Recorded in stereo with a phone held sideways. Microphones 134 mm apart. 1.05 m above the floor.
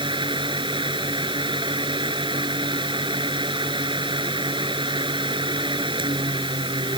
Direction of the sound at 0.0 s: 35° right (ahead or behind).